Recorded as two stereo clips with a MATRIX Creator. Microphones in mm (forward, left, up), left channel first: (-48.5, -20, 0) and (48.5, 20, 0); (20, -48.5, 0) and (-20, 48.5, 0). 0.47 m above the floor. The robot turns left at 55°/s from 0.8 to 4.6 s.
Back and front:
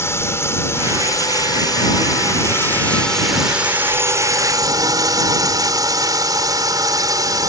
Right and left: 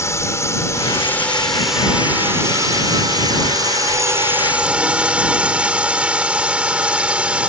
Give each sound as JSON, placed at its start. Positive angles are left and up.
{"t": 0.0, "sound": "a drone", "azimuth_deg": -110}